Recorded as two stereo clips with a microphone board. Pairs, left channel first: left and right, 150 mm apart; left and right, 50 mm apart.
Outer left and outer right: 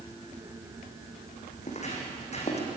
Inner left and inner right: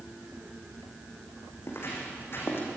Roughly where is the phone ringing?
No phone ringing in this recording.